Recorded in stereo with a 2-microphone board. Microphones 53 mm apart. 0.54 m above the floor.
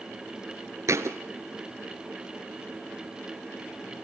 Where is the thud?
70° right (ahead or behind), 1.3 m.